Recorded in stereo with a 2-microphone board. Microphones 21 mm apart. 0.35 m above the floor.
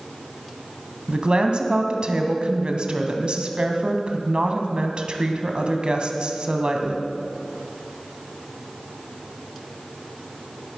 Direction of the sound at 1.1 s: 50° right (ahead or behind).